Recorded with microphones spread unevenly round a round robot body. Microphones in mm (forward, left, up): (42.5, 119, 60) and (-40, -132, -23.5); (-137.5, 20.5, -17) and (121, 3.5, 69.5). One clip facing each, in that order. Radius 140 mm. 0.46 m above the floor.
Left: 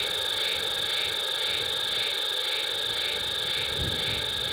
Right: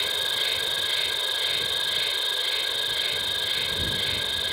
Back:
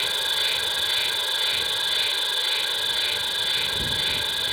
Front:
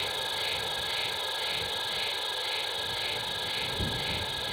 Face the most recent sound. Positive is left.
turn(degrees=-175)